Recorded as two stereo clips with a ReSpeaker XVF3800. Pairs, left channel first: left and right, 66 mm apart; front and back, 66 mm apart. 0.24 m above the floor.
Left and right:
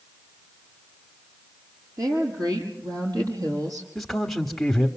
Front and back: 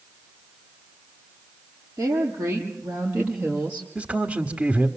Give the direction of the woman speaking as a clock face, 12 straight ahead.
4 o'clock.